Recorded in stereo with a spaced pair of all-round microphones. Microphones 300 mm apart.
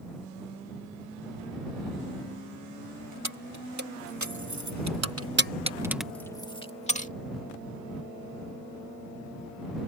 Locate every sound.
3.2 s keys jangling: 65° right (ahead or behind); by 7.1 s 25° left (ahead or behind)